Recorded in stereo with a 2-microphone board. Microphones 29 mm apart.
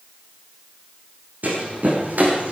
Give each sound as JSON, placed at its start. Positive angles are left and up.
{"t": 1.4, "sound": "running footsteps", "side_deg": -70, "distance_m": 5.0}